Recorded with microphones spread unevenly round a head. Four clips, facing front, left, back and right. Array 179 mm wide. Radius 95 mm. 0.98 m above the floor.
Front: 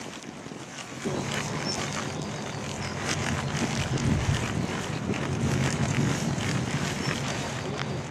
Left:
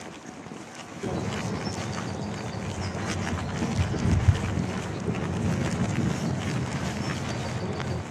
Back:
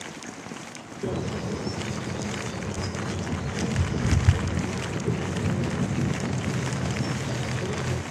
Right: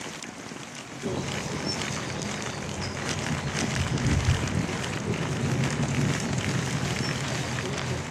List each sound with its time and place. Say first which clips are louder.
1.0 s a bird: left 1 dB, back 1 dB; 155° left, 6.5 m